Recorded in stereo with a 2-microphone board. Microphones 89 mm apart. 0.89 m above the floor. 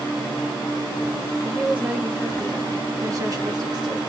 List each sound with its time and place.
1.4 s a woman speaking: 10° right (ahead or behind), 1.5 m; by 4.0 s 50° right (ahead or behind), 1.1 m